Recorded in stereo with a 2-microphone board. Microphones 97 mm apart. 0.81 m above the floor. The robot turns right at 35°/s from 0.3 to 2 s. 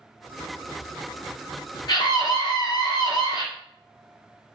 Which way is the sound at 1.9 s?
45° left (ahead or behind).